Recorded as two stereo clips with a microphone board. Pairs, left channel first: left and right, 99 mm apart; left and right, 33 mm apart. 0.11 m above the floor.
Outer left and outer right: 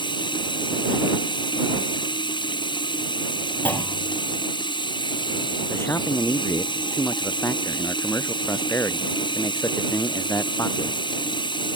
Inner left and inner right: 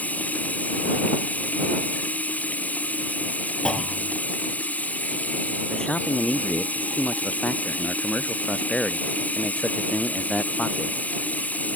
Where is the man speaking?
25° left (ahead or behind).